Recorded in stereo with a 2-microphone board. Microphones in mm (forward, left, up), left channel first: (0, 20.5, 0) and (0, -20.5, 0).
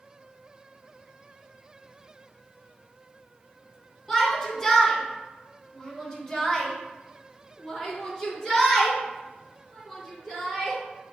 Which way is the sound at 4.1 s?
10° left (ahead or behind).